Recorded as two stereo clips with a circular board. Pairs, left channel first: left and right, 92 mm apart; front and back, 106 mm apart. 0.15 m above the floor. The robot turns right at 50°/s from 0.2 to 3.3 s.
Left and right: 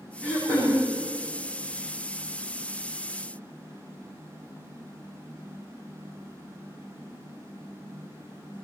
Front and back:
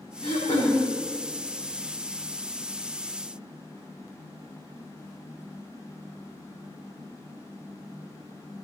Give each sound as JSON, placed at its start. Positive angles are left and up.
{"t": 0.2, "sound": "throat clearing", "azimuth_deg": 20, "distance_m": 7.0}